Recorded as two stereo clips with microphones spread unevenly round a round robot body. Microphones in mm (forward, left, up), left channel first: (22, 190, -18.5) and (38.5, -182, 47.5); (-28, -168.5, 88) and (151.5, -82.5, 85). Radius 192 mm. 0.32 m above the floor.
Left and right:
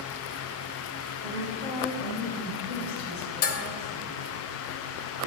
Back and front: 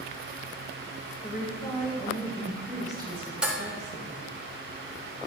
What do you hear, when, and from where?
1.2 s a woman speaking: 170° left, 1.9 m; by 4.2 s 50° left, 2 m
3.4 s dishes clattering: 105° left, 0.6 m